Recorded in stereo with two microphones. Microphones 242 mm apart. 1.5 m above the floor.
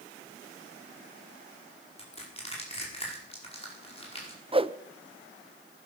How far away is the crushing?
About 5 m.